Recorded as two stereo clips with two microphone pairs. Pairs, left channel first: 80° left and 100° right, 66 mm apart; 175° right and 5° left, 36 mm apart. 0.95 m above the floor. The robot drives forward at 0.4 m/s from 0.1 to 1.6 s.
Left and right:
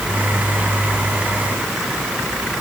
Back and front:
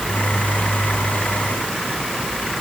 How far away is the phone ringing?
I don't hear a phone ringing.